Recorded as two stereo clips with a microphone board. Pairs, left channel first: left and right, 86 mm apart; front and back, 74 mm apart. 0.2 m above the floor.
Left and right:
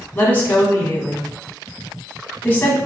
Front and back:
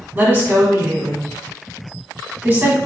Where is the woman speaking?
140° left, 1.4 m.